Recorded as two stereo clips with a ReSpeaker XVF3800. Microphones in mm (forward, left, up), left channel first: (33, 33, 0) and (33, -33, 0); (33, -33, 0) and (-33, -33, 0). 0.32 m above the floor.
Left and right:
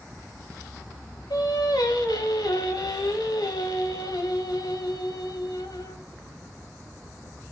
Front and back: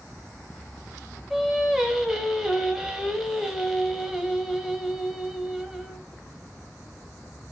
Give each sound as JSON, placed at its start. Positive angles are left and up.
{"t": 1.3, "sound": "singing", "azimuth_deg": 95, "distance_m": 0.7}